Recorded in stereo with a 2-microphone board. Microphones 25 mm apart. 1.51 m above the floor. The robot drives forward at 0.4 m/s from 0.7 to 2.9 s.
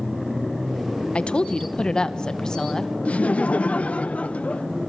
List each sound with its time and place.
1.1 s a woman speaking: 45° left (ahead or behind), 0.8 m; by 2.9 s 25° left (ahead or behind), 1.3 m
3.0 s laughter: 55° left (ahead or behind), 0.7 m